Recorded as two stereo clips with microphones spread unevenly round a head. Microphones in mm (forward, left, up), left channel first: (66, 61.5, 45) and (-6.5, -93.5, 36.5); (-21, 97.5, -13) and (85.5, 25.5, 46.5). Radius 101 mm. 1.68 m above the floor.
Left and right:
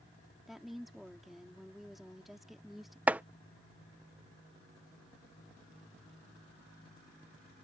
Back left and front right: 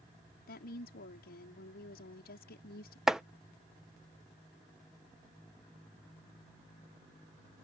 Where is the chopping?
35° right.